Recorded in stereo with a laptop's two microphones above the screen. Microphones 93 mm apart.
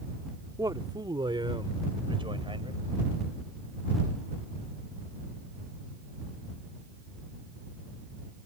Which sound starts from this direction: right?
A man speaking, at 0.6 s.